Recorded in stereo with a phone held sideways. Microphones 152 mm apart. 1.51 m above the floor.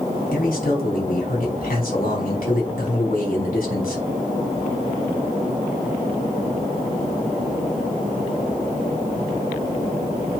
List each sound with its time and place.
0.3 s a man speaking: 65° left (ahead or behind), 4 m